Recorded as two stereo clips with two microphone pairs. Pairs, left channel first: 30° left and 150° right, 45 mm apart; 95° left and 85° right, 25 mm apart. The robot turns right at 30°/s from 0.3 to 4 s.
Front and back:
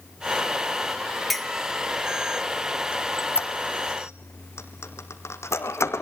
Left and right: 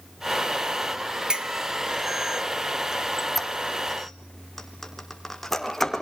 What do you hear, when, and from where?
1.3 s a clink: 60° right, 0.8 m; by 1.5 s 55° right, 0.8 m
2.9 s a squeak: 15° right, 2 m; by 6.0 s 15° left, 2 m